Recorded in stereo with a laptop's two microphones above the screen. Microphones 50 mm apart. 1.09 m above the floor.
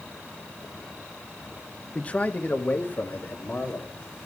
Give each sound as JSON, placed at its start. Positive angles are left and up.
{"t": 1.9, "sound": "a man speaking", "side_deg": 25, "distance_m": 0.8}